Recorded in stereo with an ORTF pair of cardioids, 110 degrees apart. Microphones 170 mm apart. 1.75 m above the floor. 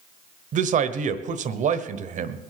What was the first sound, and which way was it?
A man speaking, 50° right.